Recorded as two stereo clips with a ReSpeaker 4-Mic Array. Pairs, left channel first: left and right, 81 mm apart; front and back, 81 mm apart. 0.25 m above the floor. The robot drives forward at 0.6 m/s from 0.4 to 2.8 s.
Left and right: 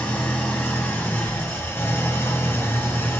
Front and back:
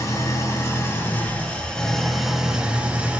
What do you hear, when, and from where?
0.0 s an engine running: 30° left, 1.7 m; by 3.2 s 120° left, 1.3 m